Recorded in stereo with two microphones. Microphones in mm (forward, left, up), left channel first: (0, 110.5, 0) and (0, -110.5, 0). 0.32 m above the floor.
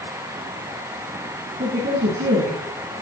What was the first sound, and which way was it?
A woman speaking, 60° right (ahead or behind).